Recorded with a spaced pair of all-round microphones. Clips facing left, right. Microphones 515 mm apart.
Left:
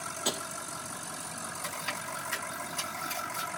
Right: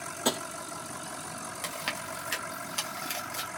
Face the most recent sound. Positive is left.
turn(degrees=-80)